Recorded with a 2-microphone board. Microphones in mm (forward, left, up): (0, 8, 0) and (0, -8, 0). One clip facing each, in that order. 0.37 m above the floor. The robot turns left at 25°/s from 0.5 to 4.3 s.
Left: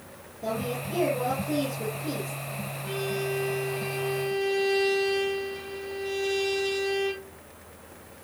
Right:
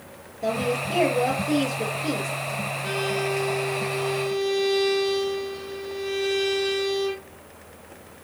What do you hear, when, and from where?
0.4 s a woman speaking: 65° right, 7.5 m; by 2.3 s 110° right, 7.5 m
2.8 s a violin: 125° right, 5 m; by 7.3 s 160° right, 5 m